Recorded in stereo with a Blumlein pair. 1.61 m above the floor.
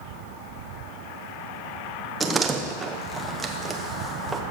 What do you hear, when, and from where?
2.2 s a door slam: 15° right, 1.2 m